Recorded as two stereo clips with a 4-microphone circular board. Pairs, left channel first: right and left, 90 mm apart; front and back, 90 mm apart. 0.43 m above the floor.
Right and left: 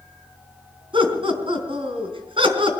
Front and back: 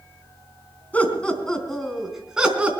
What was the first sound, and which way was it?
Laughter, 75° left.